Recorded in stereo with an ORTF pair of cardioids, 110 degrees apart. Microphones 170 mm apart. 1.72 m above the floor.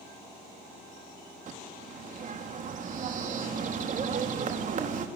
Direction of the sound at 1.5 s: 50° right.